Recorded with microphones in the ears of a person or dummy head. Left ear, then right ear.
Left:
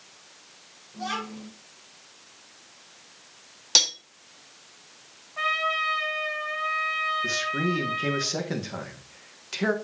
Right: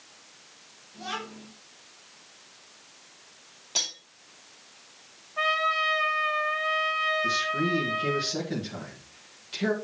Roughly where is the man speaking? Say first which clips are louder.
Even; left.